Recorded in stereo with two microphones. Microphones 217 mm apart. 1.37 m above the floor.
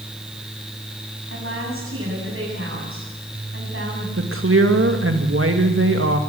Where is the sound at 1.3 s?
75° right (ahead or behind), 8.5 m.